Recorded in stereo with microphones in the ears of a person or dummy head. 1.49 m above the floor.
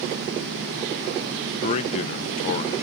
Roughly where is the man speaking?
Left.